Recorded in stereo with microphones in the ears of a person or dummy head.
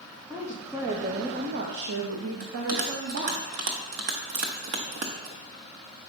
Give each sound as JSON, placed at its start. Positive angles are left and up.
{"t": 0.3, "sound": "a woman speaking", "side_deg": -10, "distance_m": 1.5}
{"t": 2.4, "sound": "a bell", "side_deg": -50, "distance_m": 1.0}
{"t": 4.3, "sound": "a crack", "side_deg": -40, "distance_m": 1.6}